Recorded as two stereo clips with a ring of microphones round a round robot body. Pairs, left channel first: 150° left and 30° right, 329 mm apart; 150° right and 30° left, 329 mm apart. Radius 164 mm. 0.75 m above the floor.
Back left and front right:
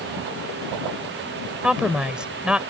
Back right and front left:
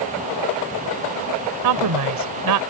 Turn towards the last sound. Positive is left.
turn(degrees=55)